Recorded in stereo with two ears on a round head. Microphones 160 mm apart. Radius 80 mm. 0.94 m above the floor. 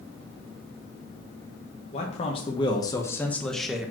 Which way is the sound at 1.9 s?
40° left (ahead or behind).